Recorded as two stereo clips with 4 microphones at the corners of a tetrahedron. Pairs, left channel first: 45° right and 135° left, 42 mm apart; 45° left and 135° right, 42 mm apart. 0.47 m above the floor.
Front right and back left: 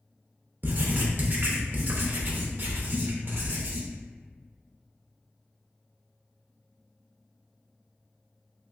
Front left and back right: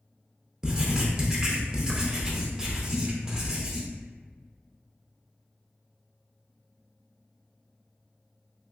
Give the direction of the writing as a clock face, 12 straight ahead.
7 o'clock.